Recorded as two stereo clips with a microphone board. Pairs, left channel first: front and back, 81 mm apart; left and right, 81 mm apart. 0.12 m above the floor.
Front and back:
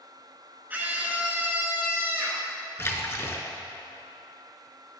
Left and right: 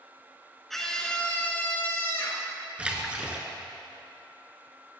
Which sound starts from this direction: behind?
A scream, at 0.7 s.